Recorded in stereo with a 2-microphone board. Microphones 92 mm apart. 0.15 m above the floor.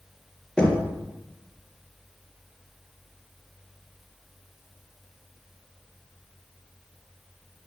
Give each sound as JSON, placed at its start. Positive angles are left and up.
{"t": 0.6, "sound": "knocking", "side_deg": 10, "distance_m": 2.5}